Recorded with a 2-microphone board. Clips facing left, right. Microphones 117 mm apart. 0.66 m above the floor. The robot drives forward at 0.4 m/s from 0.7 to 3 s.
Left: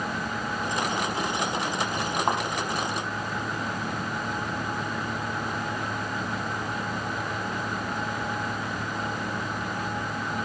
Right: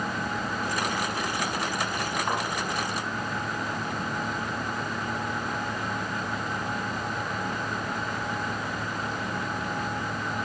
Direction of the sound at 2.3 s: 40° left (ahead or behind).